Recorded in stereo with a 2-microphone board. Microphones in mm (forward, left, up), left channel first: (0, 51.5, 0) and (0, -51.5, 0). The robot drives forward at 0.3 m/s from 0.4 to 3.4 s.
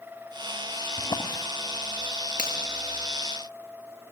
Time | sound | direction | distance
1.0 | a drawer | 40° left (ahead or behind) | 1.1 m
2.4 | a finger snap | 10° right (ahead or behind) | 7 m